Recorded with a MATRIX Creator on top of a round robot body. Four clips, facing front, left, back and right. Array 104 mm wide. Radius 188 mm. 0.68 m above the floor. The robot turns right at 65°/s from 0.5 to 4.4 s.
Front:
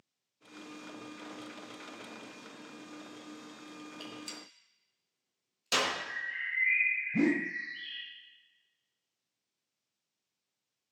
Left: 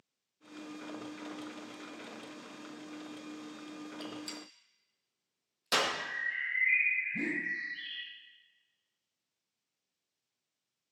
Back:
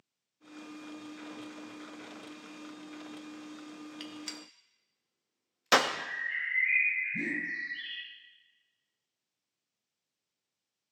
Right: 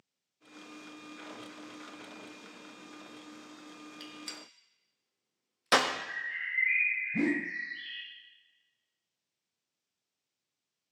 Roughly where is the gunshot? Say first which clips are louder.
Left 5 dB, back 1 dB; behind.